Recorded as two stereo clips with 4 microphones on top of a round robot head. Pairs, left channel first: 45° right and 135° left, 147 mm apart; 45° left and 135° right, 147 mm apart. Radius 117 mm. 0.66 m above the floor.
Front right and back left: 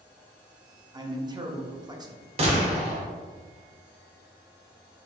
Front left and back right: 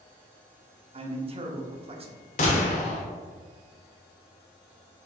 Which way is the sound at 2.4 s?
85° left.